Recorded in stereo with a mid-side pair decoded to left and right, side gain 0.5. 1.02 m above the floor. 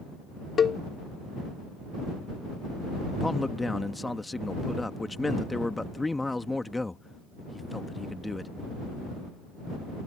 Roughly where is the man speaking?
Ahead.